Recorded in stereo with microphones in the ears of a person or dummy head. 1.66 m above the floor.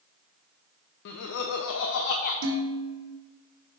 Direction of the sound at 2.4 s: 70° right (ahead or behind).